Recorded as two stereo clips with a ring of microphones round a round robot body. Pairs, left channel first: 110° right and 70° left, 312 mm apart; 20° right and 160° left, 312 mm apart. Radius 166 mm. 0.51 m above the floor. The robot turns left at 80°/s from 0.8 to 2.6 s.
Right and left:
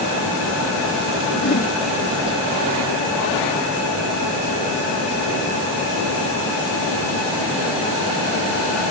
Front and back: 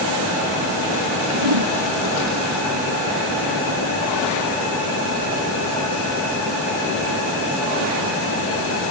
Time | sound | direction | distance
1.3 | a whoosh | 160° right | ?